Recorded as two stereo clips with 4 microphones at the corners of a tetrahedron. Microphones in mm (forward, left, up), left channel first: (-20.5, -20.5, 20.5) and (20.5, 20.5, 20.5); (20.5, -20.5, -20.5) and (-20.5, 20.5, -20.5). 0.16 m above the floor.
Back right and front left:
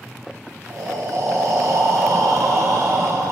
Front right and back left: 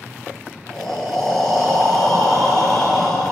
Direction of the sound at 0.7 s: 35° left.